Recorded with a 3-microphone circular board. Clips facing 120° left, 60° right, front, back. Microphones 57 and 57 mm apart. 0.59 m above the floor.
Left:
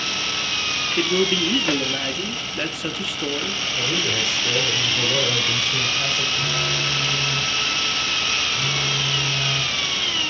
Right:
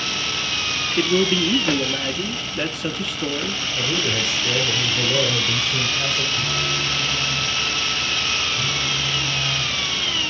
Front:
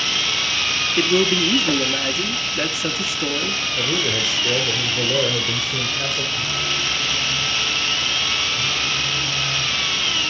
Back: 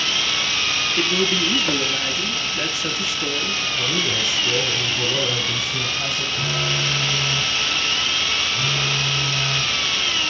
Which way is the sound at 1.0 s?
35° left.